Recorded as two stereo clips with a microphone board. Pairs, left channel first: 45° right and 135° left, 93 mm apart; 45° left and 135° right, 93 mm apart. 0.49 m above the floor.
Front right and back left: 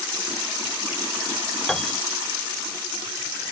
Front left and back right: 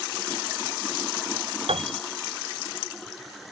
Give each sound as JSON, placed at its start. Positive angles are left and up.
{"t": 1.7, "sound": "a piano", "azimuth_deg": -130}